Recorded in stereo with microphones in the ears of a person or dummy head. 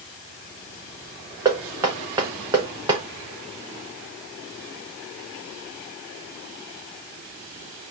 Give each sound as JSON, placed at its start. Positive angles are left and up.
{"t": 1.4, "sound": "knocking", "side_deg": -15, "distance_m": 0.8}